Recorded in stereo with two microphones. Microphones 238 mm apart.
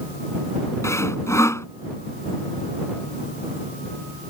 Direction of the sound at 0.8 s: 10° left (ahead or behind).